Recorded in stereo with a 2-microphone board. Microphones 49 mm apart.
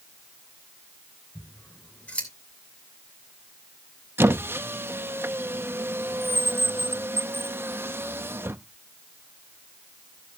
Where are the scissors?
25° left (ahead or behind), 2.5 m.